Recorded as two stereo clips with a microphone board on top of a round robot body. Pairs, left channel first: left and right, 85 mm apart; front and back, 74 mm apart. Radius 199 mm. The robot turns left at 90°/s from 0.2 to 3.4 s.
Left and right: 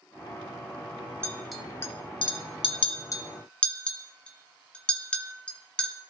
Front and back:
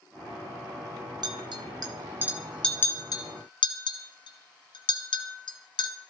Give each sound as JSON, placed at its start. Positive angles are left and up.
{"t": 1.2, "sound": "a clink", "azimuth_deg": -155, "distance_m": 2.0}